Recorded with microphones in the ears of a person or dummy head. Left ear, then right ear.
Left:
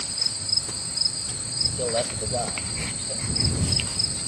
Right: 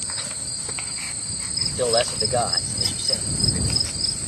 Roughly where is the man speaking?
Right.